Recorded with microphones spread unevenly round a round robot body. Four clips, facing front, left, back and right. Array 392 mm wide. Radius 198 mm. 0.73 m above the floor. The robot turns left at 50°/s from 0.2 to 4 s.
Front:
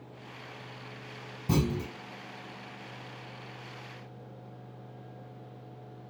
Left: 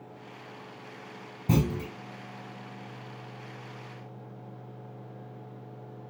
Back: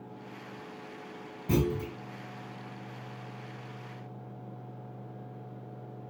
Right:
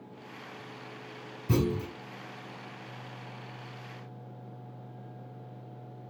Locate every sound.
1.5 s a clunk: 75° left, 2 m; by 1.9 s 55° left, 2 m